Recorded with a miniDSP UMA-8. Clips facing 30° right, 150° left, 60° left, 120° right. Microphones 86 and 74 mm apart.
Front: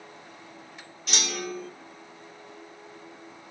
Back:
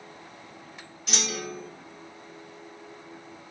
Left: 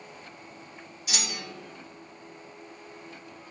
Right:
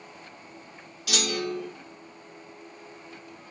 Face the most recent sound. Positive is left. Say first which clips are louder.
# front 1 dB, right 8 dB
turn(degrees=-125)